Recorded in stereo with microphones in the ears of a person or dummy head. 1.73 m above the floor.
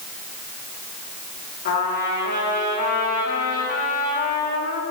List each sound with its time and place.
1.6 s a trumpet: 60° left (ahead or behind), 3.5 m